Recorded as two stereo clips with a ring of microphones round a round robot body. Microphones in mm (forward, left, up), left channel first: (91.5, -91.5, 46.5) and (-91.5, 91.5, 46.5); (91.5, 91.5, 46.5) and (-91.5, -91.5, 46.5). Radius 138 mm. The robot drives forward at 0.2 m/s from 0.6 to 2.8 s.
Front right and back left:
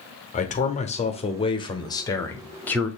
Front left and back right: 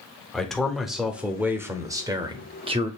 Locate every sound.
0.3 s a man speaking: 40° right, 0.9 m; by 2.9 s 120° right, 0.8 m